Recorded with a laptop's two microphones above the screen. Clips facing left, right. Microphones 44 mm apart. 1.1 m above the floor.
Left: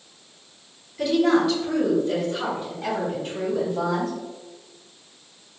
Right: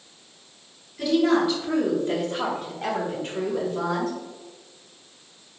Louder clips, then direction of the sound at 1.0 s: Left 1 dB; 5° left (ahead or behind).